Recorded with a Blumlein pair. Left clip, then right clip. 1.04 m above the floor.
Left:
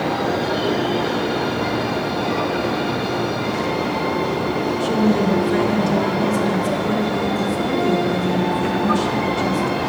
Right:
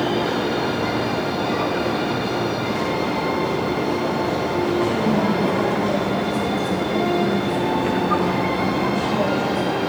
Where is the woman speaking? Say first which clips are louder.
Left 1 dB; 25° left, 1.9 m.